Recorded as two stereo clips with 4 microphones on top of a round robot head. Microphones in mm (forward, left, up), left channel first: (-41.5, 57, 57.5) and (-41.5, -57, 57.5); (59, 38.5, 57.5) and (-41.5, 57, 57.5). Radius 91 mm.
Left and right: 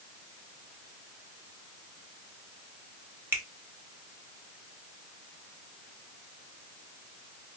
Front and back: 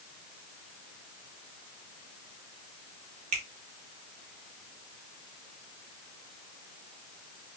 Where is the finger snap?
160° right, 1.2 m.